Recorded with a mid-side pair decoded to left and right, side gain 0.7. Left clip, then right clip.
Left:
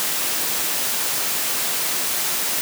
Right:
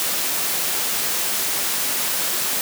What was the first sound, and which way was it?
Only background noise.